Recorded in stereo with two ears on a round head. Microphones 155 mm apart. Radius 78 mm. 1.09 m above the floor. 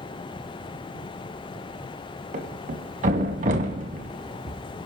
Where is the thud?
50° right (ahead or behind), 1.8 m.